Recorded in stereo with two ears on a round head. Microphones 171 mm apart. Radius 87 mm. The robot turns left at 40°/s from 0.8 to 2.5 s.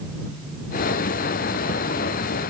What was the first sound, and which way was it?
Only background noise.